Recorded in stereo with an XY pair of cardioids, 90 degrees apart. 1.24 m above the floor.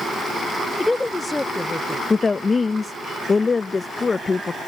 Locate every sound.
0.8 s a woman speaking: 15° left
2.1 s a woman speaking: 30° left